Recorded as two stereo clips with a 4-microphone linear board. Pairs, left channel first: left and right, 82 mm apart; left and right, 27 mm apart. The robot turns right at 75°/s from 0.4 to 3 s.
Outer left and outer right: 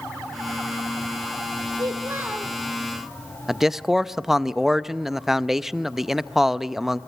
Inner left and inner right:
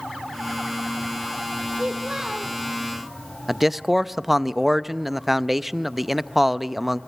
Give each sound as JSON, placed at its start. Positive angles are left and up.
{"t": 1.7, "sound": "a child speaking", "azimuth_deg": -65, "distance_m": 2.0}
{"t": 3.5, "sound": "a man speaking", "side_deg": -5, "distance_m": 0.5}